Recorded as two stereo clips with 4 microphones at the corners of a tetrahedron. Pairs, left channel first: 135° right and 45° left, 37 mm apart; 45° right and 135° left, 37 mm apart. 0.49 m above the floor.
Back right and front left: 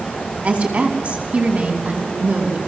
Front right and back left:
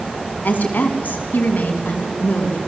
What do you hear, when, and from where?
0.4 s a woman speaking: 5° right, 5 m